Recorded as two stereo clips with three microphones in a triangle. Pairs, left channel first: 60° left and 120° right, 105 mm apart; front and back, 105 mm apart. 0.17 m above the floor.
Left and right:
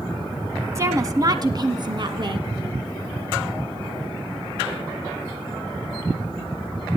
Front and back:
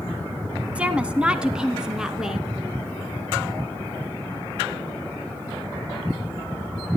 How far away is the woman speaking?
About 1.1 m.